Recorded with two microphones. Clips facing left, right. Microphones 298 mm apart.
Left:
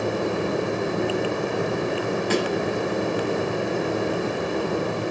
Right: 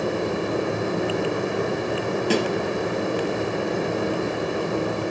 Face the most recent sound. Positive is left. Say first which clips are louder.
# right 2 dB
turn(degrees=-35)  # may be behind; listen again after turning